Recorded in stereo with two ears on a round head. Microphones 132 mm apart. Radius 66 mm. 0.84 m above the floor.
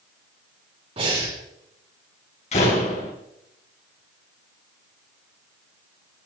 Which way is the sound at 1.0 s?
40° right (ahead or behind).